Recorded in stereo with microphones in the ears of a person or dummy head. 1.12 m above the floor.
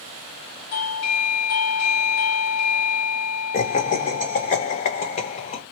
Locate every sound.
0.7 s a doorbell: 50° left (ahead or behind), 0.8 m
3.5 s laughter: 35° left (ahead or behind), 0.9 m